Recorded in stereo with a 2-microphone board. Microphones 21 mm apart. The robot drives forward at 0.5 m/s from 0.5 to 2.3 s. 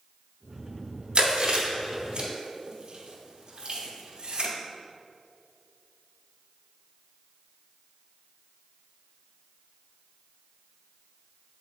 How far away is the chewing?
About 1.5 m.